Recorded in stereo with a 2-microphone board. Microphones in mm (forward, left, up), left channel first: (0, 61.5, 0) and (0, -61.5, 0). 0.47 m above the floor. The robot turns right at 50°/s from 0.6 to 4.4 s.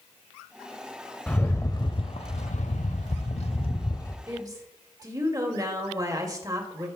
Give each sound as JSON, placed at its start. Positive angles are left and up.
{"t": 1.3, "sound": "a rattle", "azimuth_deg": 10, "distance_m": 0.9}
{"t": 4.3, "sound": "a woman speaking", "side_deg": -25, "distance_m": 2.0}